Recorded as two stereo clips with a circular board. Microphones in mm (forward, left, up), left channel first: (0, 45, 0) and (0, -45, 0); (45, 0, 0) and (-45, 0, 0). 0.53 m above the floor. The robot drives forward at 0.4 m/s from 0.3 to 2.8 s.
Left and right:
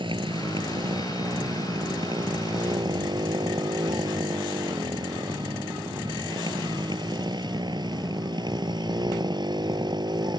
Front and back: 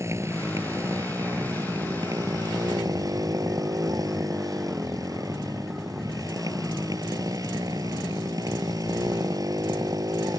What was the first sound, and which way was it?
A motorcycle, 120° right.